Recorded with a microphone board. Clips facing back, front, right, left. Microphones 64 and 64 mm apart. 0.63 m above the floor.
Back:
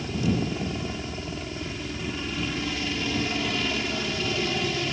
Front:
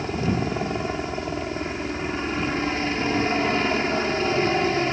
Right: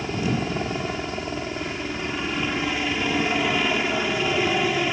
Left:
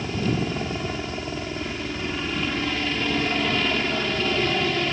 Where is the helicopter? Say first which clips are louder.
Front 2 dB, even; 20° right.